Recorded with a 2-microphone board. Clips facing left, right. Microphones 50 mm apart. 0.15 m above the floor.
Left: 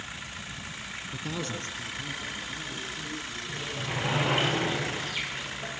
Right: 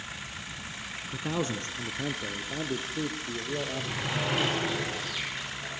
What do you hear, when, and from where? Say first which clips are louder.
1.1 s a man speaking: right 4 dB; 10° right (ahead or behind), 1.1 m; by 4.5 s 75° right (ahead or behind), 5 m
3.5 s a sliding door: right 1 dB; 25° left (ahead or behind), 7.5 m